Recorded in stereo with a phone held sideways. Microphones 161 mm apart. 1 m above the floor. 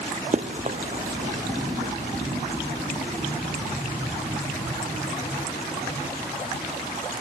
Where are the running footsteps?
45° right (ahead or behind); by 1.9 s 60° right (ahead or behind).